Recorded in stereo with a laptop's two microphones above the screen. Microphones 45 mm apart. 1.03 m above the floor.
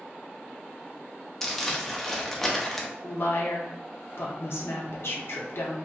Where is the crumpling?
5° left (ahead or behind), 0.6 m.